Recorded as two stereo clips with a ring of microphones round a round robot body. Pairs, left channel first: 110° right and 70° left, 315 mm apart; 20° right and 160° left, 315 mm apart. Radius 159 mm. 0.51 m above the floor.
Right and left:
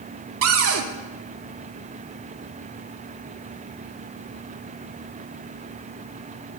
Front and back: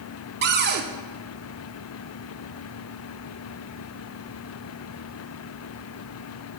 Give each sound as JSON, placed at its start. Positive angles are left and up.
{"t": 0.4, "sound": "a cupboard door", "azimuth_deg": 105, "distance_m": 0.6}